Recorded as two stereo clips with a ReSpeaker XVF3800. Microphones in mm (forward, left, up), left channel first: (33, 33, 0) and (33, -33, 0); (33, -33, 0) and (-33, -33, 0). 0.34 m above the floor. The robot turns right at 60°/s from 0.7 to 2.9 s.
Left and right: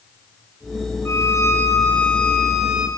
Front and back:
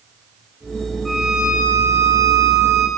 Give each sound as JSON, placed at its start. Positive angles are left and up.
{"t": 1.1, "sound": "a violin", "azimuth_deg": 90, "distance_m": 0.9}